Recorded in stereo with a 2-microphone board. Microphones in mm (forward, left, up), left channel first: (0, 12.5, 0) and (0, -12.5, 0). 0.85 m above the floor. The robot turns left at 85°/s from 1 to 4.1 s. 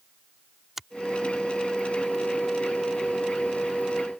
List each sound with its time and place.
0.8 s a finger snap: 15° right (ahead or behind)